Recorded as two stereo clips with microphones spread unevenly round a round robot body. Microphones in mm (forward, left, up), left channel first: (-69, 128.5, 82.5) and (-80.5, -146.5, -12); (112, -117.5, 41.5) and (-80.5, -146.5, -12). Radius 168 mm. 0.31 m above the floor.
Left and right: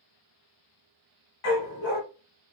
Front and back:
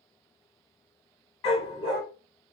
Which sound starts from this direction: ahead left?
A dog barking, at 1.4 s.